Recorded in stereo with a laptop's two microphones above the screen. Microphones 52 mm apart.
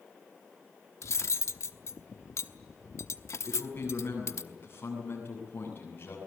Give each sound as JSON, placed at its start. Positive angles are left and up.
{"t": 1.0, "sound": "cutlery clinking", "side_deg": 65, "distance_m": 0.9}
{"t": 3.4, "sound": "a man speaking", "side_deg": 45, "distance_m": 7.5}